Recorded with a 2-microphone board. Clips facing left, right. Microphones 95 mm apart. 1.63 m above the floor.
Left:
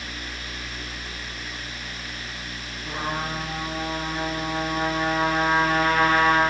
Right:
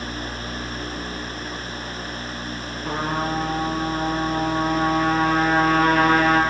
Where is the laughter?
I don't hear laughter.